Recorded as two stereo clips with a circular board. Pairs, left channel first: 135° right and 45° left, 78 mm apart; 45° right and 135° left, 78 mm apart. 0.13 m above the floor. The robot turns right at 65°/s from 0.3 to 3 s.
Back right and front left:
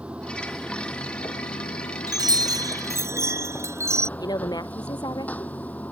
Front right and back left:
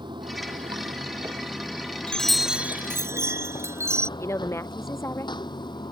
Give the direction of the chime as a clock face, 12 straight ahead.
11 o'clock.